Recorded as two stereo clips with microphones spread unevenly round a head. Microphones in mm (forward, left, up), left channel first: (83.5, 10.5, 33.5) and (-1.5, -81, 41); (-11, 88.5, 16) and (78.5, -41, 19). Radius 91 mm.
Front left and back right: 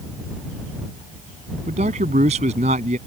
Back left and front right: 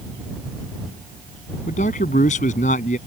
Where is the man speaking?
175° left.